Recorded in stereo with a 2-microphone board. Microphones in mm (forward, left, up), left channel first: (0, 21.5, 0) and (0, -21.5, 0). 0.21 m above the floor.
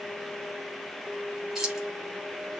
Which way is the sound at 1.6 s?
10° right (ahead or behind).